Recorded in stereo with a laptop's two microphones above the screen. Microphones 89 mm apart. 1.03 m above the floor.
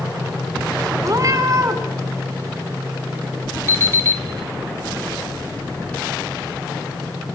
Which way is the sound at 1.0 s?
40° right (ahead or behind).